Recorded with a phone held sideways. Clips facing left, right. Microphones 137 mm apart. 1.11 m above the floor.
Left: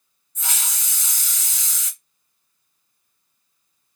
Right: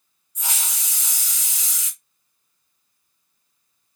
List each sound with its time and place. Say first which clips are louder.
0.3 s a hiss: even; 10° right (ahead or behind), 1.3 m